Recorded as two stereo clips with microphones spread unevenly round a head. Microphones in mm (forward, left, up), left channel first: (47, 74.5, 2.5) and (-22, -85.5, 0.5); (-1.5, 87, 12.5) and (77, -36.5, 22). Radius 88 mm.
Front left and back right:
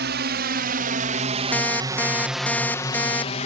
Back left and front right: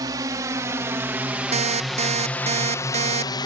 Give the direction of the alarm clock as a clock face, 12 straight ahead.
12 o'clock.